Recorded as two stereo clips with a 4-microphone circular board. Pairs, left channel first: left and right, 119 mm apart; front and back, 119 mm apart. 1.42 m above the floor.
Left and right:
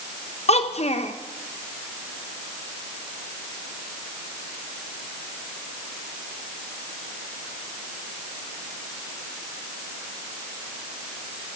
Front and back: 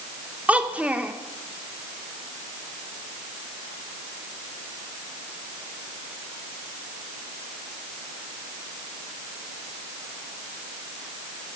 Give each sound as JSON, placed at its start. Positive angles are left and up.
{"t": 0.5, "sound": "a child speaking", "azimuth_deg": 100, "distance_m": 0.9}